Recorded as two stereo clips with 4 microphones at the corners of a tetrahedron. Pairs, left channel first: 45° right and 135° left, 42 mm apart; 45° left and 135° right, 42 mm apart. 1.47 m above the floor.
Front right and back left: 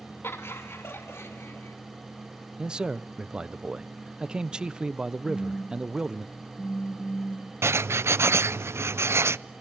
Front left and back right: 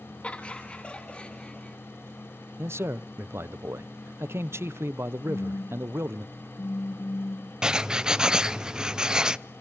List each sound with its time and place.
0.2 s laughter: 15° right, 2.5 m; by 1.8 s 20° right, 3.5 m
2.6 s a man speaking: 150° right, 0.7 m
5.3 s a phone buzzing: 25° left, 0.7 m
7.6 s writing: 155° left, 0.5 m